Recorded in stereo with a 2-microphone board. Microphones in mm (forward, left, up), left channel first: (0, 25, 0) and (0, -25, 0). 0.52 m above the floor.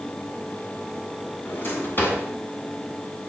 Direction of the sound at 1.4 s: 45° left (ahead or behind).